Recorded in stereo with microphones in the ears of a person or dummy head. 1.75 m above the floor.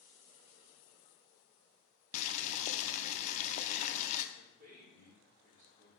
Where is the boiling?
45° left (ahead or behind), 0.7 m.